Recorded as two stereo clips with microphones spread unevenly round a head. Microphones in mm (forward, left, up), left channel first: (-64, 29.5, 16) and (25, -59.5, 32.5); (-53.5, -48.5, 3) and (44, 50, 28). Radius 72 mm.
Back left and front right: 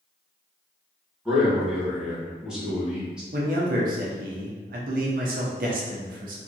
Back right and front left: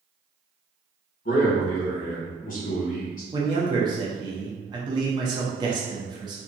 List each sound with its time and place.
1.2 s a man speaking: 130° right, 1.5 m
3.3 s a man speaking: 20° right, 0.8 m